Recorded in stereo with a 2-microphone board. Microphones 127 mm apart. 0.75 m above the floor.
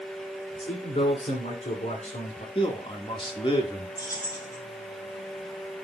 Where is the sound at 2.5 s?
45° left (ahead or behind), 1.5 m.